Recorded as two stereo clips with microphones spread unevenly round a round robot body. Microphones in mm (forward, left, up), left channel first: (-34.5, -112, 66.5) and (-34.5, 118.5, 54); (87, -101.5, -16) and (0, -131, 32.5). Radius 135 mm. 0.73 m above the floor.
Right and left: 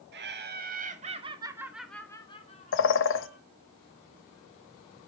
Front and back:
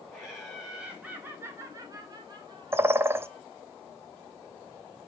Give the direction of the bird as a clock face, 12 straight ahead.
3 o'clock.